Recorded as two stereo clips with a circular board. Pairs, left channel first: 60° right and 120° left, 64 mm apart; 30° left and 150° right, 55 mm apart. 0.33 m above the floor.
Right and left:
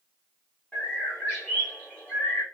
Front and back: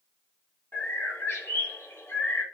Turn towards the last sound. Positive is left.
turn(degrees=5)